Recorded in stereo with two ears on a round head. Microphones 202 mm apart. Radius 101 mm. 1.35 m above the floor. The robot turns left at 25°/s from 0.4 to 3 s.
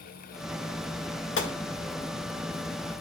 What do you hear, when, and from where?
1.4 s a gunshot: 60° left (ahead or behind), 1.6 m